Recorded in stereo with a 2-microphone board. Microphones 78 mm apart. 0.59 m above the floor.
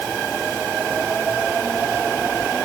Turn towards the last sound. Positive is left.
No sound to turn to.